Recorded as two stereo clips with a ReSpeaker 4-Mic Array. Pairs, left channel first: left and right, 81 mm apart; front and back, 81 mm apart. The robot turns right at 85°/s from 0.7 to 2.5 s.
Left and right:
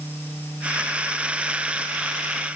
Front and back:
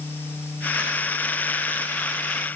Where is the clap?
I don't hear a clap.